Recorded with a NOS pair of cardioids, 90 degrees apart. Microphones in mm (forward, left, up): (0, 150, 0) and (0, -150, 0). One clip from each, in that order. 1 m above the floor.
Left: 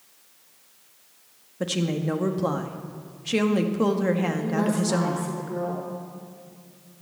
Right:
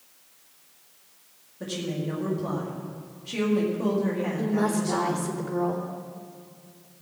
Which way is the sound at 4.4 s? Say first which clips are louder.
Even; 20° right.